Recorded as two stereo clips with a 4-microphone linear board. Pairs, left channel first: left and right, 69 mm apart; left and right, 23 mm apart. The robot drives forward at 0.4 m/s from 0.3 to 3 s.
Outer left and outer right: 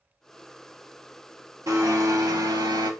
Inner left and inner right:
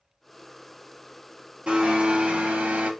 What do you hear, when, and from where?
1.7 s a blender: 50° right (ahead or behind), 0.7 m; by 2.9 s 75° right (ahead or behind), 0.5 m